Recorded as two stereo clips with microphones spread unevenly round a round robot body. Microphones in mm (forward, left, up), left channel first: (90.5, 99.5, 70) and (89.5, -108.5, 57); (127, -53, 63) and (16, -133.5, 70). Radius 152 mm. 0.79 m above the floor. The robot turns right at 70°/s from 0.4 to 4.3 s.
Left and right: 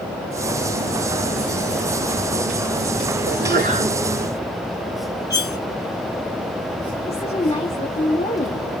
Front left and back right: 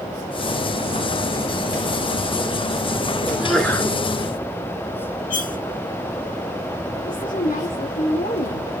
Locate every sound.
3.3 s a sneeze: 70° right, 3.5 m; by 4.0 s 15° right, 3.5 m
5.3 s cutlery clinking: 15° left, 3 m
7.0 s a woman speaking: 25° left, 3 m